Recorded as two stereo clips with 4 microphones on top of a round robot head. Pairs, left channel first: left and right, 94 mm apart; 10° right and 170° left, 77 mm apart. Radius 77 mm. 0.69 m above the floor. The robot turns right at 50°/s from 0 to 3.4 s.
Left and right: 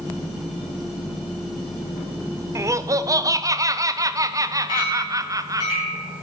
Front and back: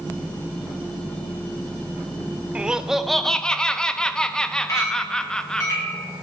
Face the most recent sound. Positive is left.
turn(degrees=40)